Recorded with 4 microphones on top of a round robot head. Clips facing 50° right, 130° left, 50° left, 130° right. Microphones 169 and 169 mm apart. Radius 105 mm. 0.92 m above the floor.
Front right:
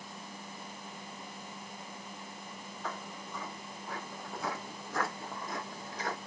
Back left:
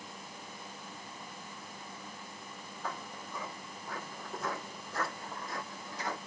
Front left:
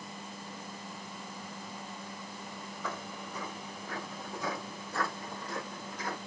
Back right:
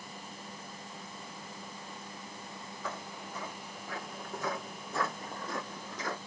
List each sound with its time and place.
2.8 s footsteps: 50° left, 1.4 m; by 6.2 s 115° right, 1.3 m